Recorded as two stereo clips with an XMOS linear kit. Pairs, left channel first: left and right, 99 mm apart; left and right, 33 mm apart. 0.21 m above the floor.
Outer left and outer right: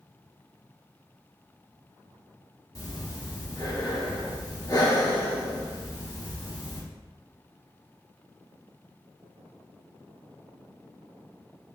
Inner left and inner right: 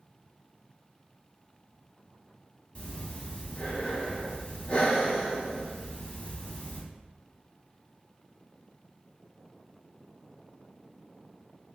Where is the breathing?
40° left (ahead or behind), 0.8 m.